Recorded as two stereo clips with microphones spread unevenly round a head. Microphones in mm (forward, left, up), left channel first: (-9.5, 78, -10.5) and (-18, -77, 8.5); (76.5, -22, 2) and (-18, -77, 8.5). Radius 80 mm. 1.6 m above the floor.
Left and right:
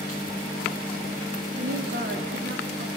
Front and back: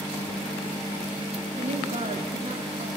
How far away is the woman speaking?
About 4.5 m.